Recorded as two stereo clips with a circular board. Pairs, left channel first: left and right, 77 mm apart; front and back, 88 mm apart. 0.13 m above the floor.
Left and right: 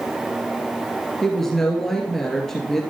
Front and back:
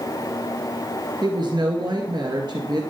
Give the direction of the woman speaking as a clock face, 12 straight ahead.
6 o'clock.